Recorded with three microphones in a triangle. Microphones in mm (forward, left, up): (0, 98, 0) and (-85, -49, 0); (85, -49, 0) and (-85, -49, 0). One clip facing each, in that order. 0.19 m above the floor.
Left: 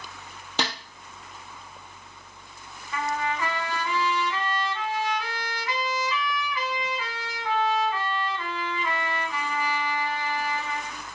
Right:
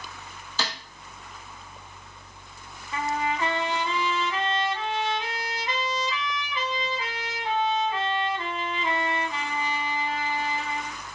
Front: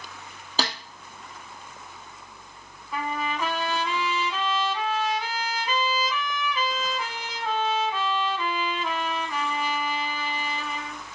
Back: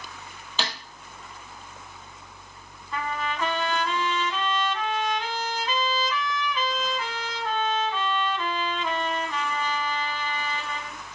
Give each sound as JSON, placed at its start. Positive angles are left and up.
{"t": 0.6, "sound": "a snare drum", "azimuth_deg": 50, "distance_m": 1.4}
{"t": 2.9, "sound": "a trumpet", "azimuth_deg": -75, "distance_m": 0.6}